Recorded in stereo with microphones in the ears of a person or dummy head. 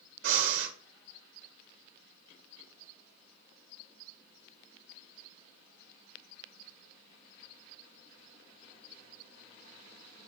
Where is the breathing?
80° right, 1.3 m.